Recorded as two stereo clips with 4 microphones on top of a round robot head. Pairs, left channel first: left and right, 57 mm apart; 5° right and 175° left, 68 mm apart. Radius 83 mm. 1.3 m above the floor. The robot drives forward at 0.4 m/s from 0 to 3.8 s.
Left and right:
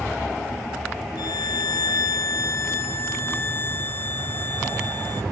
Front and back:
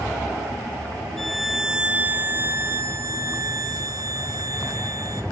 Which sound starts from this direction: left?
A violin, at 1.2 s.